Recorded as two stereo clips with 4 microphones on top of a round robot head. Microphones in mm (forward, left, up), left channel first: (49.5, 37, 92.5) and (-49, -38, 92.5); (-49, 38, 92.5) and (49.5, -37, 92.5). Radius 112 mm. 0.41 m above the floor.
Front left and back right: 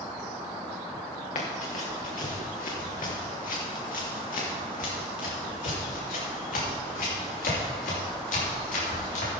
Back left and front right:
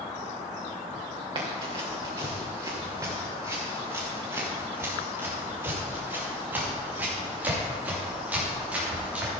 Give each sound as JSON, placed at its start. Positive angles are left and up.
{"t": 1.4, "sound": "running footsteps", "azimuth_deg": 15, "distance_m": 3.0}